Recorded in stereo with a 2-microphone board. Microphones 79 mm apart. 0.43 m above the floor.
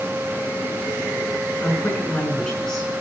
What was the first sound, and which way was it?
A woman speaking, 20° left (ahead or behind).